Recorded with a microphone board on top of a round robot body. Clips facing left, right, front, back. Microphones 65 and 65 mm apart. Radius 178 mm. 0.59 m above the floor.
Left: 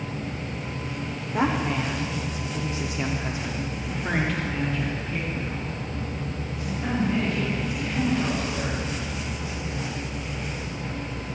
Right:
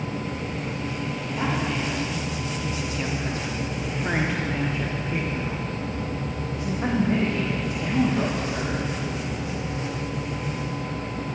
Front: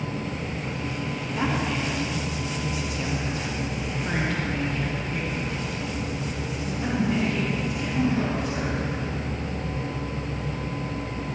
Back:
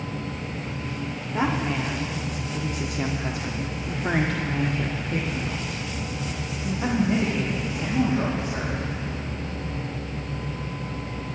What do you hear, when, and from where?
1.3 s a woman speaking: 120° left, 2.5 m; by 8.8 s 120° right, 4.5 m